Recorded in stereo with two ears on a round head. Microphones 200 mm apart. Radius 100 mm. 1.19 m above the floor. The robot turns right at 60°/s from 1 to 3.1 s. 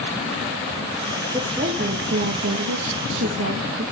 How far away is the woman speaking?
About 1.4 m.